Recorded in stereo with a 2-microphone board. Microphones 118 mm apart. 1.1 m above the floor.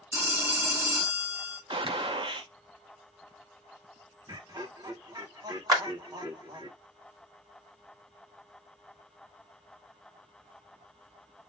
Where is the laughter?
35° right (ahead or behind), 1.1 m.